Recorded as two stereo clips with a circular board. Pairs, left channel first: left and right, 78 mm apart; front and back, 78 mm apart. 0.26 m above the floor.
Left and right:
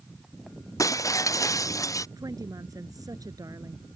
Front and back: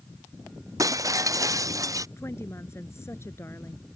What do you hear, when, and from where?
0.8 s breaking glass: 135° left
2.2 s a woman speaking: 55° right